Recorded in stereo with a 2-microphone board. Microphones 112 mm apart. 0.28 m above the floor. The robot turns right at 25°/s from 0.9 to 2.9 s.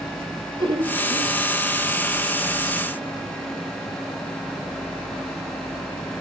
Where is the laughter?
45° right (ahead or behind), 1.4 m; by 1.3 s 50° right (ahead or behind), 1.4 m.